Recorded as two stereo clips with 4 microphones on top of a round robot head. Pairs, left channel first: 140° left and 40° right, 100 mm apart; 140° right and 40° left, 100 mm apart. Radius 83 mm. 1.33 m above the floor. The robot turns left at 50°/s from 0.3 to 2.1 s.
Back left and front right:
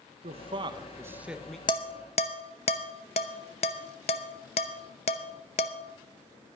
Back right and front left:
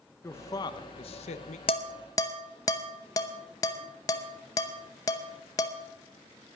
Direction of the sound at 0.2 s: 70° right.